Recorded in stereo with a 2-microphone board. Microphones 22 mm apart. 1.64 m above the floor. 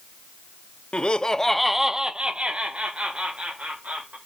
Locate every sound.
0.9 s laughter: 50° left (ahead or behind), 0.7 m; by 4.2 s 65° right (ahead or behind), 2.0 m